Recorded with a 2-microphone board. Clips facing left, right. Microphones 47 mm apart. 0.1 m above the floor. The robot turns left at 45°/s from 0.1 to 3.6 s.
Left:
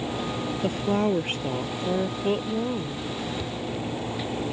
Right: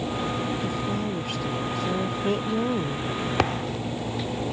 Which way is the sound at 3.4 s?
70° right (ahead or behind).